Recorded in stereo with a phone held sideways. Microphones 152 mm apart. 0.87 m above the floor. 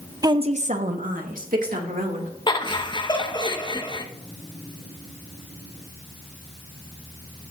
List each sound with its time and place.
0.2 s a woman speaking: 25° right (ahead or behind), 0.5 m; by 2.3 s 70° right (ahead or behind), 2.5 m
2.5 s laughter: 30° left (ahead or behind), 0.9 m